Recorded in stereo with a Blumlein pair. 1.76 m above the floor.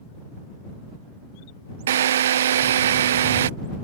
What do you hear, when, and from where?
1.9 s a drill: 60° right